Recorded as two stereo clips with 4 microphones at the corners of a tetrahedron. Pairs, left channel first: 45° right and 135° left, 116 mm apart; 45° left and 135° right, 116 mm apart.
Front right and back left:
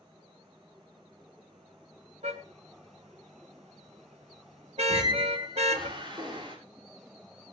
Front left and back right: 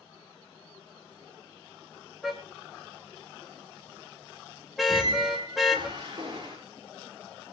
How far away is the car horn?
About 3 m.